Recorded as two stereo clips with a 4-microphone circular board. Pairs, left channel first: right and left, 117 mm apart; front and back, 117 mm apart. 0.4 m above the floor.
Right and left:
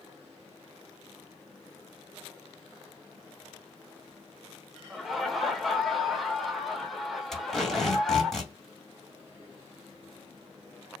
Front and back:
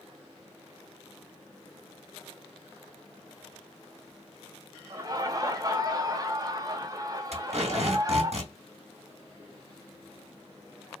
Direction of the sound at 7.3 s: Straight behind.